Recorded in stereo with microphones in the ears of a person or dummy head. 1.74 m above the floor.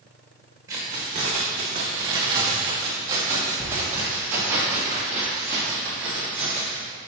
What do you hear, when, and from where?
0.7 s keys jangling: 20° right (ahead or behind), 1.0 m; by 6.8 s 10° right (ahead or behind), 3 m